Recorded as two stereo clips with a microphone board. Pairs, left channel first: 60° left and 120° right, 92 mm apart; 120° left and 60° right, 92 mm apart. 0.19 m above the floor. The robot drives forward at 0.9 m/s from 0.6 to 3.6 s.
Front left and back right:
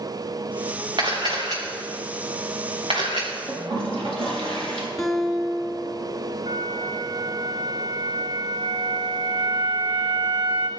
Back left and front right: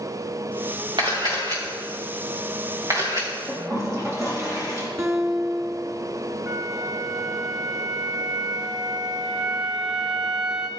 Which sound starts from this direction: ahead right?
A guitar, at 5.0 s.